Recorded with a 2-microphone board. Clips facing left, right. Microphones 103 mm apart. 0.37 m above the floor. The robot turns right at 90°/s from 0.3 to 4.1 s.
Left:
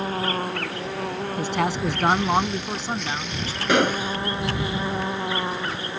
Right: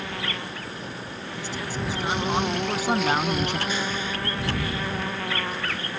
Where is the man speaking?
60° left; by 3.6 s 100° right.